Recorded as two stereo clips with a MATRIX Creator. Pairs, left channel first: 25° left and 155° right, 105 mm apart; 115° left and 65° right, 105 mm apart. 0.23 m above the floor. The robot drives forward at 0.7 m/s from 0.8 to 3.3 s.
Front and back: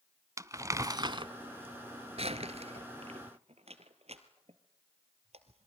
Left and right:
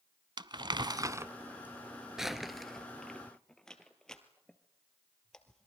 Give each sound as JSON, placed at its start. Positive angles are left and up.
{"t": 0.4, "sound": "crumpling", "azimuth_deg": -105, "distance_m": 0.6}